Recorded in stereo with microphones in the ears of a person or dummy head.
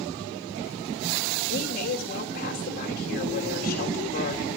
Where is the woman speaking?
50° left (ahead or behind), 3 m.